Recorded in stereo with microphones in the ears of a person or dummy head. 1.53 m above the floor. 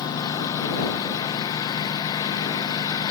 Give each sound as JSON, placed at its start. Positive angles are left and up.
{"t": 0.0, "sound": "a lawn mower", "side_deg": 20}